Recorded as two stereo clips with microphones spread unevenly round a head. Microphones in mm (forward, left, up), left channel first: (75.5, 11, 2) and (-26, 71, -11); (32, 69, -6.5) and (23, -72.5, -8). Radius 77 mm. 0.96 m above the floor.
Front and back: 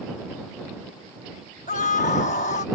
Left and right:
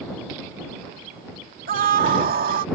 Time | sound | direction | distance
1.7 | a scream | 75° right | ?